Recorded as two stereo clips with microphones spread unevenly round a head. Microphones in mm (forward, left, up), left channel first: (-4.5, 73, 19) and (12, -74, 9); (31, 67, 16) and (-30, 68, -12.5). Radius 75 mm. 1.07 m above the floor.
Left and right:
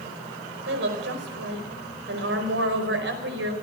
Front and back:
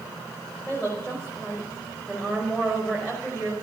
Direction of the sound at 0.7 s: 85° right.